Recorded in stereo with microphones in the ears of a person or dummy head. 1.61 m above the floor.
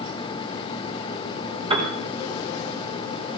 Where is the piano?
35° right (ahead or behind), 4.5 m.